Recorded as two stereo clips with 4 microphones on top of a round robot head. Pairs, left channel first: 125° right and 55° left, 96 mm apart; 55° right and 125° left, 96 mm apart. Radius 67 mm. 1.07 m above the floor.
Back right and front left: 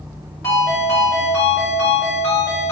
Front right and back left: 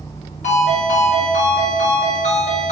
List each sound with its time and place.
0.4 s a ringtone: 60° right, 2 m